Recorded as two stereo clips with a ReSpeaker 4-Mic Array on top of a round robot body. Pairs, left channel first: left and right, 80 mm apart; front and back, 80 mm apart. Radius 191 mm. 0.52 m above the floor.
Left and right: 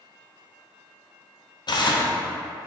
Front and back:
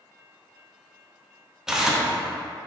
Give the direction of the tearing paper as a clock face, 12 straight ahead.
9 o'clock.